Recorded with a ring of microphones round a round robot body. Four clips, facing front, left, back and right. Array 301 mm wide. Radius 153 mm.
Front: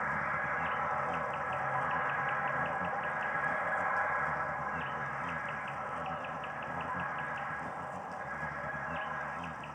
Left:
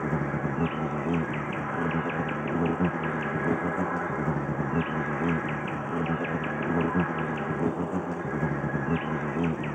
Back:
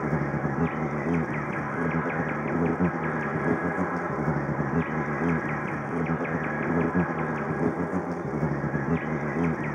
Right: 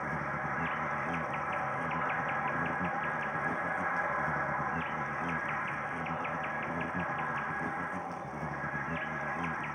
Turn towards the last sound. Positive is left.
turn(degrees=145)